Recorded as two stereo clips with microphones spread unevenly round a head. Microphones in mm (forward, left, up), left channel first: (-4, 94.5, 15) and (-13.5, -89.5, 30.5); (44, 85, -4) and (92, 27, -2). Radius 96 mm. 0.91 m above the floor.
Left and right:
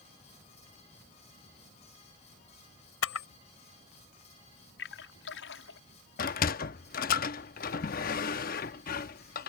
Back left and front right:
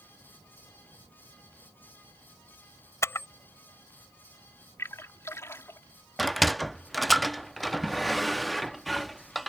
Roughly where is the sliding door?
Ahead left.